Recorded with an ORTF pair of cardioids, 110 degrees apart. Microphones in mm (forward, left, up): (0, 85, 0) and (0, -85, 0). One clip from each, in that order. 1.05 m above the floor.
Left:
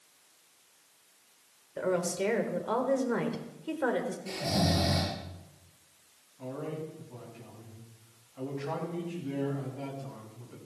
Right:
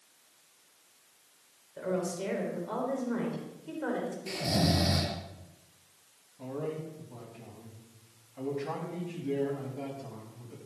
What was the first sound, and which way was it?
A woman speaking, 45° left.